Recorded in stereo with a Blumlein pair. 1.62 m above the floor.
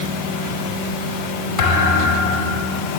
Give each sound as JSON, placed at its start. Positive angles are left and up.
{"t": 1.6, "sound": "a thud", "azimuth_deg": 25, "distance_m": 4.5}